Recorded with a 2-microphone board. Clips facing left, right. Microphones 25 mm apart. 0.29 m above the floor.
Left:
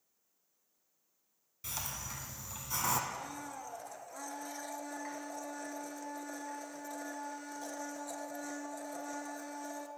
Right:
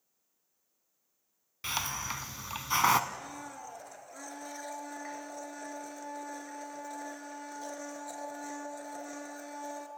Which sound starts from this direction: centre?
A blender, at 3.1 s.